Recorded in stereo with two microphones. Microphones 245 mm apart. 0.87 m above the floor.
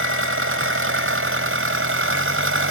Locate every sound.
0.0 s an engine running: 60° right (ahead or behind)